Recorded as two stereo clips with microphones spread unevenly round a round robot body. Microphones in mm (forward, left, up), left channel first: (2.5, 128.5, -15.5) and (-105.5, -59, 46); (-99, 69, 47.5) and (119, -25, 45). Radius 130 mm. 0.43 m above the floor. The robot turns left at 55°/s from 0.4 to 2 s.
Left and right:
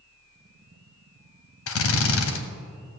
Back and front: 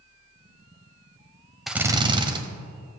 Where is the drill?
65° left, 1.1 m; by 2.4 s 45° left, 1.1 m.